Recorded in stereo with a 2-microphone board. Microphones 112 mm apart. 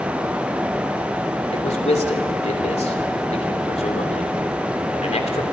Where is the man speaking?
75° left (ahead or behind), 3 m.